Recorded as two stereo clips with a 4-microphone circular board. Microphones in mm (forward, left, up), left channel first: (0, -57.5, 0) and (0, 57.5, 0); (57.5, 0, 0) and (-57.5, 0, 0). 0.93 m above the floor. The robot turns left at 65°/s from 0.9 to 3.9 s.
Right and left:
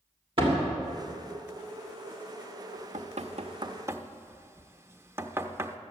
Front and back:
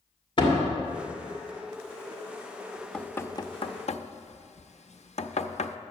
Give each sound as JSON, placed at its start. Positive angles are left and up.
{"t": 0.4, "sound": "a door slam", "azimuth_deg": 45, "distance_m": 2.0}
{"t": 2.7, "sound": "knocking", "azimuth_deg": 100, "distance_m": 0.5}